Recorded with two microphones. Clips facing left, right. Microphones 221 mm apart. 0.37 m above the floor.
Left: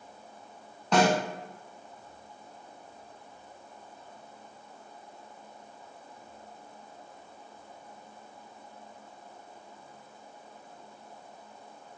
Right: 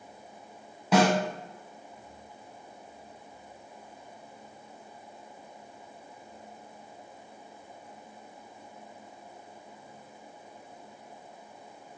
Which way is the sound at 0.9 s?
5° right (ahead or behind).